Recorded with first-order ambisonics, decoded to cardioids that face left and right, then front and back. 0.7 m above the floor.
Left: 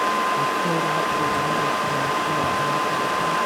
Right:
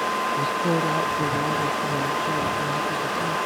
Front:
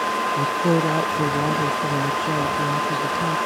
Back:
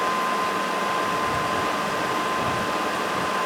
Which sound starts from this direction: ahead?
A woman speaking, at 0.4 s.